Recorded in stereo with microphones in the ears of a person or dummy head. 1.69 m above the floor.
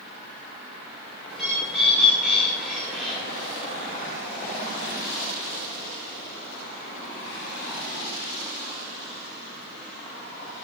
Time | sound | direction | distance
1.3 | a bird | 5° left (ahead or behind) | 5 m